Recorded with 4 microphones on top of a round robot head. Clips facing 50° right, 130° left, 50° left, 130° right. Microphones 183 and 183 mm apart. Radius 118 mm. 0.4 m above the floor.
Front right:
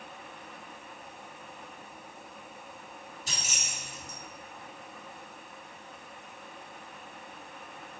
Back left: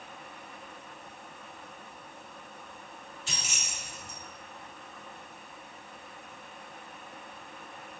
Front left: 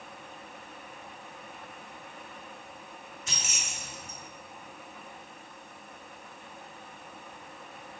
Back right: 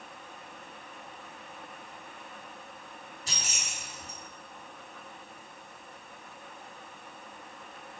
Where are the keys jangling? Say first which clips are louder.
Even, even; 85° right, 1.0 m.